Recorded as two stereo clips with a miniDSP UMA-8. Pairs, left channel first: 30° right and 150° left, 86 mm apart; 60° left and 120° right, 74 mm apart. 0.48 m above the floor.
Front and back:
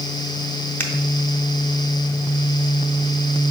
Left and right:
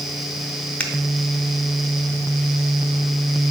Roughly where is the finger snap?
Ahead.